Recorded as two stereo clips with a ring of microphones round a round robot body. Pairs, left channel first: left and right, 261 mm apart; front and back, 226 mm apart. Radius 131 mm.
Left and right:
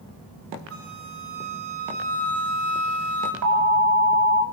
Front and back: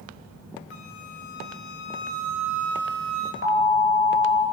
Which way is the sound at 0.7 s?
50° right.